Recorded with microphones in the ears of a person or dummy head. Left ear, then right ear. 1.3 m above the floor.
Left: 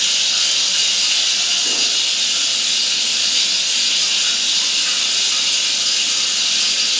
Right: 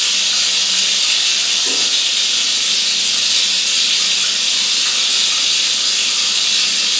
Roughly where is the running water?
Right.